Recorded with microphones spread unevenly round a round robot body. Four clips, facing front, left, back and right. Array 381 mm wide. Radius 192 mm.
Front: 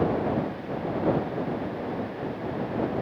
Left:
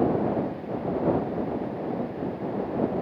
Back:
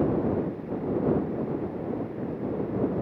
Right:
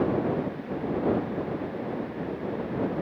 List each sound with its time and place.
Only background noise.